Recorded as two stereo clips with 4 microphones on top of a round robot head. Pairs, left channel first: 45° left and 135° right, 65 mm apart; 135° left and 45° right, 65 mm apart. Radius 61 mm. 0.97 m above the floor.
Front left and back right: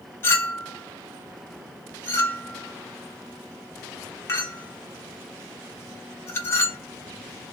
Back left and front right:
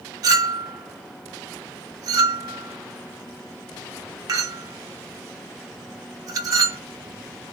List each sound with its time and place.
0.2 s a clink: 5° right, 0.7 m